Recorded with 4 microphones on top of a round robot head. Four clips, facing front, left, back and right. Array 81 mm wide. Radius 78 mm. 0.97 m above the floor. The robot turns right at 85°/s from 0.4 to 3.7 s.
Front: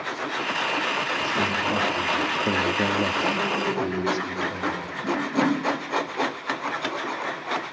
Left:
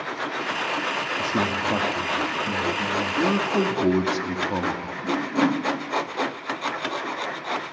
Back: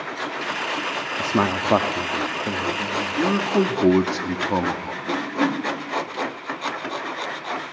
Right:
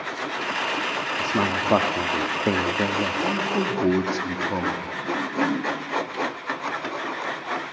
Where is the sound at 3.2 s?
135° left, 2.5 m; by 4.9 s straight behind, 2.5 m.